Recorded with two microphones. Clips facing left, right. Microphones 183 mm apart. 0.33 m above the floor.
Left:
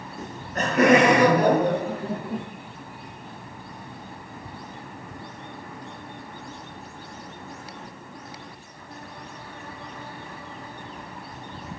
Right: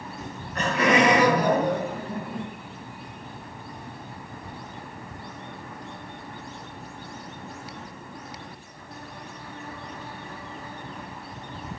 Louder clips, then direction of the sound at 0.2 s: Left 2 dB; 35° left (ahead or behind).